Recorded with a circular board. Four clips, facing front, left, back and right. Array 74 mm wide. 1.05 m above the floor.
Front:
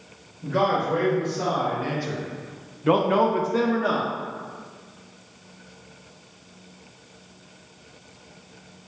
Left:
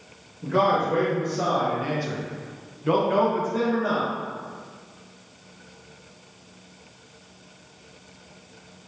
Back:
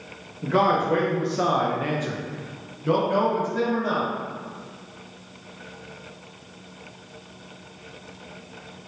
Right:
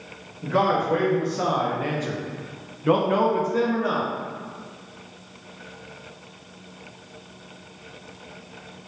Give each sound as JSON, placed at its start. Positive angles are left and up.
{"t": 0.4, "sound": "a man speaking", "azimuth_deg": -170, "distance_m": 1.7}